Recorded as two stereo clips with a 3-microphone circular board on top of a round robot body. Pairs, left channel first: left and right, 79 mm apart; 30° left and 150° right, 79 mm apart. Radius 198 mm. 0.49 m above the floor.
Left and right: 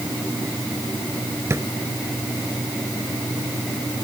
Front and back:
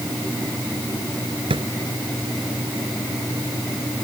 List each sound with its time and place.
1.5 s a drawer: 150° right